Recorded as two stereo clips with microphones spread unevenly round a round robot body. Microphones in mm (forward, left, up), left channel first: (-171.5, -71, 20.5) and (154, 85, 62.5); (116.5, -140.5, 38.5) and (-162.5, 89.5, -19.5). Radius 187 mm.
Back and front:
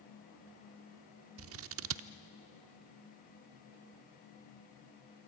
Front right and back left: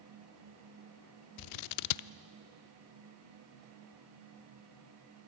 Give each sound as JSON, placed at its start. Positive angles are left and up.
{"t": 1.4, "sound": "scissors", "azimuth_deg": -30, "distance_m": 0.5}